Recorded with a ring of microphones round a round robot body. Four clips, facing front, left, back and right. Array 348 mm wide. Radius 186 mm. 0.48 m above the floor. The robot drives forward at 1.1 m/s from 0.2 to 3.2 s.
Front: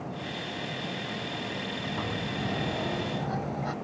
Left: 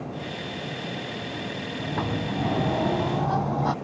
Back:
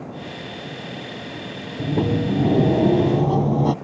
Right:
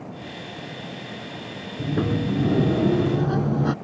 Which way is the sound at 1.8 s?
150° right.